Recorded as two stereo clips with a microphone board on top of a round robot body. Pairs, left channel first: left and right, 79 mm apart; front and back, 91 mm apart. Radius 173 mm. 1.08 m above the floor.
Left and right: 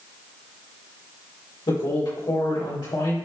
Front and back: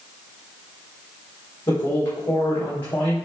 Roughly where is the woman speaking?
Ahead left.